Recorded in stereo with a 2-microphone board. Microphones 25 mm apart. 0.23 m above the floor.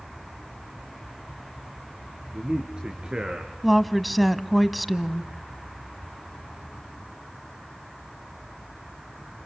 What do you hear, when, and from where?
2.3 s a man speaking: 30° right (ahead or behind), 4.5 m; by 3.5 s 40° right (ahead or behind), 3.5 m
3.6 s a woman speaking: centre (ahead or behind), 1.3 m